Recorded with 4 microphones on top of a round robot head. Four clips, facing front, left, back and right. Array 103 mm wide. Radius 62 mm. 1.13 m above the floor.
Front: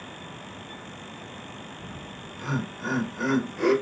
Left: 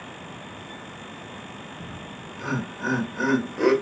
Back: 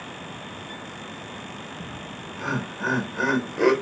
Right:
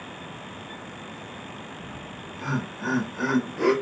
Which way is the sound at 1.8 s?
165° left.